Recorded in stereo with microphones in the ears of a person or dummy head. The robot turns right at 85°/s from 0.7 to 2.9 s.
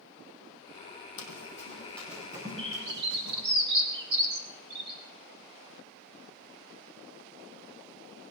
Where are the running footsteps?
60° left (ahead or behind), 3 m; by 3.4 s 65° right (ahead or behind), 4 m.